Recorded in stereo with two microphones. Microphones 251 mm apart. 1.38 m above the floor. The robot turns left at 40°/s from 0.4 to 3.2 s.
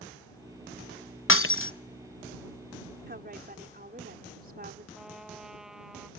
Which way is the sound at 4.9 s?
Centre (ahead or behind).